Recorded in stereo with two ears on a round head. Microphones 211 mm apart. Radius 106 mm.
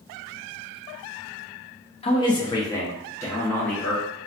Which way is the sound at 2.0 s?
25° left (ahead or behind).